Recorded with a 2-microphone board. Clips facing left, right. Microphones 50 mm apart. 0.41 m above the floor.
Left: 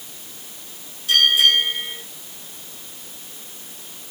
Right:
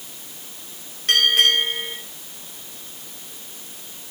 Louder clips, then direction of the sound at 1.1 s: Left 1 dB; 55° right (ahead or behind).